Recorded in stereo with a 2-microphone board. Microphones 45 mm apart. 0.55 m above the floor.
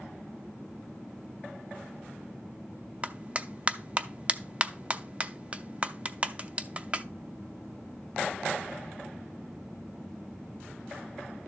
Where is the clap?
25° right (ahead or behind), 0.6 m.